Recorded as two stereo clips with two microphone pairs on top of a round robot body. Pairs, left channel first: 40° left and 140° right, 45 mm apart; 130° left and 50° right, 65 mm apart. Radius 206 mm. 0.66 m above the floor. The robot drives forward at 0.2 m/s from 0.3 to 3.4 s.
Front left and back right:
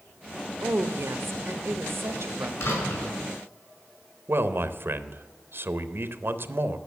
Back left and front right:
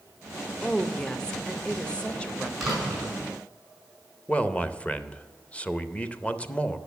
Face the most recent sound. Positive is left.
turn(degrees=-165)